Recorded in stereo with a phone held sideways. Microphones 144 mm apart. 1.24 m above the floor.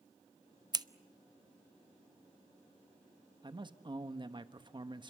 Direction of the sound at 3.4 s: 35° right (ahead or behind).